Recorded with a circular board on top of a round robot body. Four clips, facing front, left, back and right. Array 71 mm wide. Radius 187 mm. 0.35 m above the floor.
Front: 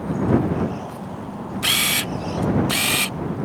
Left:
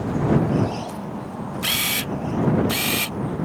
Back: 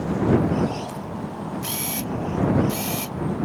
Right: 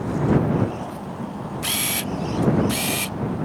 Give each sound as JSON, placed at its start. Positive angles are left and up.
{"t": 1.6, "sound": "a camera shutter", "azimuth_deg": 15}